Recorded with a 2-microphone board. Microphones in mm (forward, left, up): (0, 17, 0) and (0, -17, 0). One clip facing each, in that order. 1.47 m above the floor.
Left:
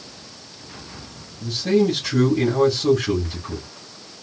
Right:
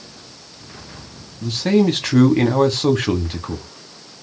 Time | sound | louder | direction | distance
1.4 | a man speaking | right 2 dB | 65° right (ahead or behind) | 0.9 m